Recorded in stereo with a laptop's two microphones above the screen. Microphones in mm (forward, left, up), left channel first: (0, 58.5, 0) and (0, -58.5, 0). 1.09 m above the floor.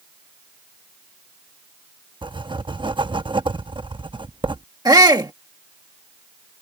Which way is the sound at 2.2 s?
45° right (ahead or behind).